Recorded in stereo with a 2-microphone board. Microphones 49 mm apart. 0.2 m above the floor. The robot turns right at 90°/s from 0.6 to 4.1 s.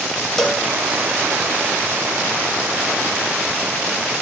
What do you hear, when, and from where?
0.4 s a cowbell: 5° left (ahead or behind), 1.1 m; by 0.7 s 10° left (ahead or behind), 1.1 m